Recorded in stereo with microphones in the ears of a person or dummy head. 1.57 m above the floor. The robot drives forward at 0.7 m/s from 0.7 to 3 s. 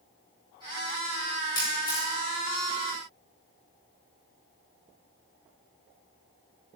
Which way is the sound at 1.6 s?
20° left (ahead or behind).